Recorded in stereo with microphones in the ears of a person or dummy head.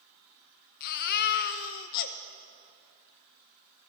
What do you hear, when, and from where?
0.8 s a baby crying: 55° left (ahead or behind), 0.9 m